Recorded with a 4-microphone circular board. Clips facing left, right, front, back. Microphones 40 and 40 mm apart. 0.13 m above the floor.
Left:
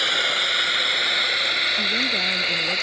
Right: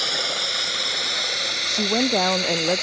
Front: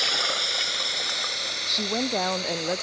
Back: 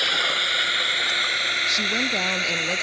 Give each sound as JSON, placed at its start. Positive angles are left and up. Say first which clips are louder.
{"t": 0.0, "sound": "a drone", "louder": "left 4 dB, back 4 dB", "azimuth_deg": 135}
{"t": 1.7, "sound": "a woman speaking", "louder": "even, back 4 dB", "azimuth_deg": -70}